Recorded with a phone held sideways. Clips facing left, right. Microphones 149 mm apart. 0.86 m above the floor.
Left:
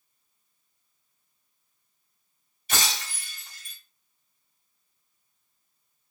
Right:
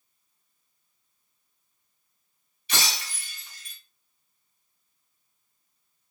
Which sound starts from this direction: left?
Breaking glass, at 2.7 s.